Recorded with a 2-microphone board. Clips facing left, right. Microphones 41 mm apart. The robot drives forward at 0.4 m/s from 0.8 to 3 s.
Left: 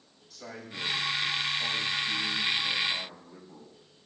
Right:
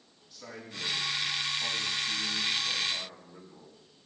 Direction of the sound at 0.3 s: 75° left (ahead or behind).